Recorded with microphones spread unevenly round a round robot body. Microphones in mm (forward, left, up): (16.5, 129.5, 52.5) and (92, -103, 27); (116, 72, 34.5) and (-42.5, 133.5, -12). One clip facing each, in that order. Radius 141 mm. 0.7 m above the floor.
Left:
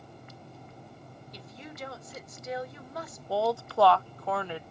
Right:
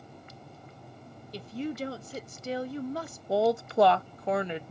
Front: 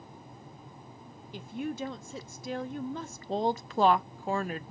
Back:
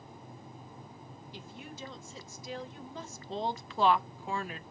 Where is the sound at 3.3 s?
45° right, 0.5 m.